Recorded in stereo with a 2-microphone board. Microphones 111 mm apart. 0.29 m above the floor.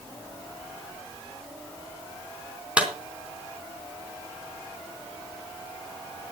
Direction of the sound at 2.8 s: 10° right (ahead or behind).